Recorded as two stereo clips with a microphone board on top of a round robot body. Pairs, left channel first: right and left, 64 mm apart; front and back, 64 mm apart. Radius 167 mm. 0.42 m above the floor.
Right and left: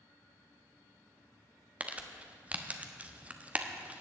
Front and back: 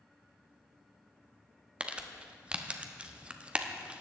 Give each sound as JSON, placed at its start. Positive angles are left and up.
{"t": 1.8, "sound": "crumpling", "azimuth_deg": 130, "distance_m": 1.4}